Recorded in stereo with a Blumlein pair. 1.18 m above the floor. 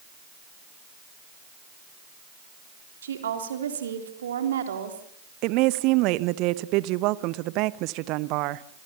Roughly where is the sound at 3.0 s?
Ahead right.